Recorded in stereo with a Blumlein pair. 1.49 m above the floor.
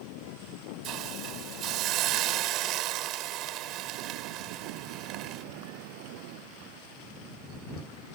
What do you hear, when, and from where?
0.8 s a hiss: 35° right